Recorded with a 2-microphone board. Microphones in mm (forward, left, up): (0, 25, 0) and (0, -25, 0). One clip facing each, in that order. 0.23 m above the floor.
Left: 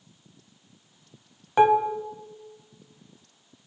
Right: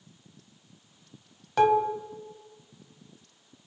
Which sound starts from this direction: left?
Dishes clattering, at 1.6 s.